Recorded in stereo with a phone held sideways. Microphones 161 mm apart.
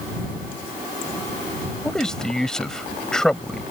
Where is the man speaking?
5° left (ahead or behind).